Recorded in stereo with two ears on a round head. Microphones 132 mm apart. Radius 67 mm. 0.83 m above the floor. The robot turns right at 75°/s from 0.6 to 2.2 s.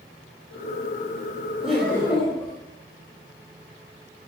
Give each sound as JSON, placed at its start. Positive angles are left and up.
{"t": 1.6, "sound": "laughter", "azimuth_deg": -5, "distance_m": 3.0}